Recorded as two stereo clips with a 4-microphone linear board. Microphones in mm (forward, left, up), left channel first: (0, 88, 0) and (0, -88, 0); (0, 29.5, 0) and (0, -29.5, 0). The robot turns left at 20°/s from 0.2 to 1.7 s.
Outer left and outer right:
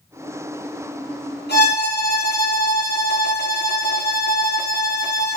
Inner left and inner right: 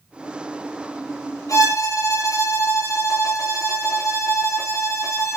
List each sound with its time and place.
1.5 s a violin: 70° left (ahead or behind), 4.5 m; by 5.4 s 65° left (ahead or behind), 4.5 m